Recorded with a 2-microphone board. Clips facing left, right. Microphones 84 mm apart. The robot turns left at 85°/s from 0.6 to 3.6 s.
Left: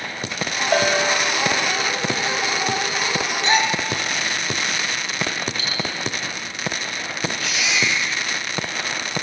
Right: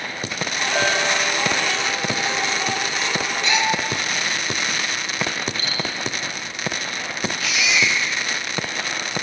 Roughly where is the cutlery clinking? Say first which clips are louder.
Even; right.